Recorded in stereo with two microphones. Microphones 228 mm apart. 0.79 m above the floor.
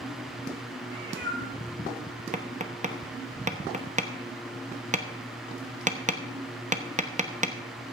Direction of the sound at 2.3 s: 35° right (ahead or behind).